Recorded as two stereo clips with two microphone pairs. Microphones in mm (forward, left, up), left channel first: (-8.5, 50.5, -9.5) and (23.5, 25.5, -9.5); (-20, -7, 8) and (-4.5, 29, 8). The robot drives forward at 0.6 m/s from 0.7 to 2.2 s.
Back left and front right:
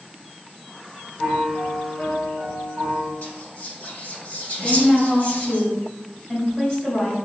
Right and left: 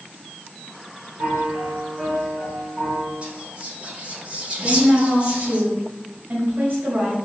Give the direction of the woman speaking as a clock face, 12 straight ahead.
9 o'clock.